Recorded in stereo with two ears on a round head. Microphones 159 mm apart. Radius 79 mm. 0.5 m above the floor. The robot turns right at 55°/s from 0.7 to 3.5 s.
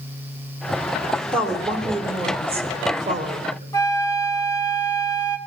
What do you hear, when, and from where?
1.3 s a woman speaking: 170° left, 1.4 m; by 3.6 s 70° right, 1.4 m
3.7 s a flute: 20° left (ahead or behind), 1.3 m